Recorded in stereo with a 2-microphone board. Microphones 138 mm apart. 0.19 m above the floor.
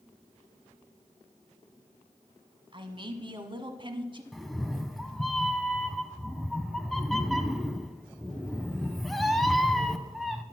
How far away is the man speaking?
About 1.2 m.